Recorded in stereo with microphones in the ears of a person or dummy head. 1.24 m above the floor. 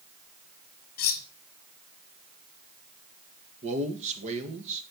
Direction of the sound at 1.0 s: 45° left (ahead or behind).